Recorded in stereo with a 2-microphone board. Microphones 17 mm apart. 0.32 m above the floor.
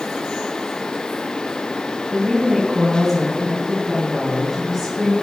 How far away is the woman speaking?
About 2.5 m.